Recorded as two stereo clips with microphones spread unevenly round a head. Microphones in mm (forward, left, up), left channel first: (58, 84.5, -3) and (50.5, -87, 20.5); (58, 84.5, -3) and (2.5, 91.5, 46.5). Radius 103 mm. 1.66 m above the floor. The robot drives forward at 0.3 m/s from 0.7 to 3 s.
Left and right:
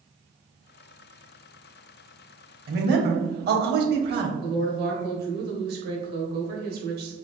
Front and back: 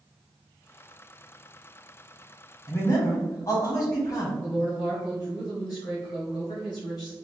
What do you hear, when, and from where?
2.7 s a man speaking: 60° right, 1.0 m; by 4.3 s 65° right, 0.9 m
4.4 s a woman speaking: 75° right, 1.0 m